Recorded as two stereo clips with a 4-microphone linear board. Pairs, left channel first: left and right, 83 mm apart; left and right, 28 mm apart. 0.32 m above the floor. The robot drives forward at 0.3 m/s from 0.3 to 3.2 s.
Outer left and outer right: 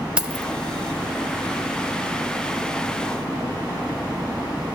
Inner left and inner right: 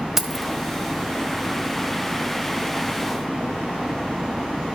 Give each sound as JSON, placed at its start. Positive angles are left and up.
{"t": 0.2, "sound": "keys jangling", "side_deg": -15, "distance_m": 0.5}